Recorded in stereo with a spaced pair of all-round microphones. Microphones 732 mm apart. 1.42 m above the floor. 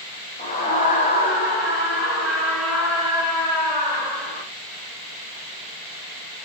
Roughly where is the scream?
Centre.